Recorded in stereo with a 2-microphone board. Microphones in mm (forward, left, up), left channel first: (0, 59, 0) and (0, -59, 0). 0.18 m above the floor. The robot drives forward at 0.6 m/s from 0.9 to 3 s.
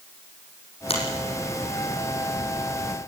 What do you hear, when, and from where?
0.9 s a finger snap: 55° left (ahead or behind), 8 m; by 1.0 s 50° left (ahead or behind), 8 m